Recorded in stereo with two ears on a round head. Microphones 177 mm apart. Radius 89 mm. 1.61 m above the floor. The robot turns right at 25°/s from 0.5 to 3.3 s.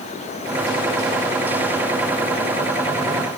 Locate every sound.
Only background noise.